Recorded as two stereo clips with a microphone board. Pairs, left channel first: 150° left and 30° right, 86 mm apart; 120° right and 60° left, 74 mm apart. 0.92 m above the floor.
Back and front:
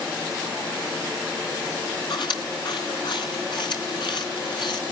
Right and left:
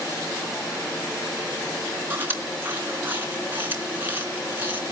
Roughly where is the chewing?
Behind left.